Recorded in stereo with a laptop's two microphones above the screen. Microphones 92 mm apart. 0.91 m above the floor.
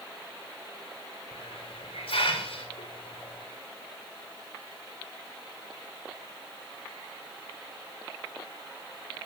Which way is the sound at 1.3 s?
80° left.